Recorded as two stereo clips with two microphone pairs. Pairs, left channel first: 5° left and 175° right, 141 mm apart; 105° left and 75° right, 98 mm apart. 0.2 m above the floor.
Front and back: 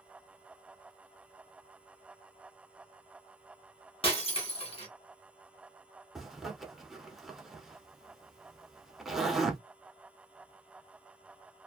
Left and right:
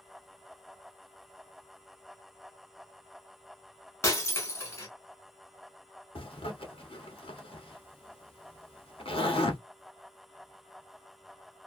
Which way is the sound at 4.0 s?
45° left.